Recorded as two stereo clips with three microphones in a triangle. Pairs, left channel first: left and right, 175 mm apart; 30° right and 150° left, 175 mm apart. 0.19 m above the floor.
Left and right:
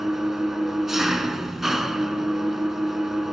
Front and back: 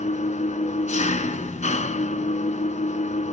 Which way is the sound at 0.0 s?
Straight ahead.